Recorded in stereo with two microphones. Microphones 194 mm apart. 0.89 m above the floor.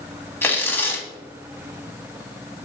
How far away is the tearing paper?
About 0.9 m.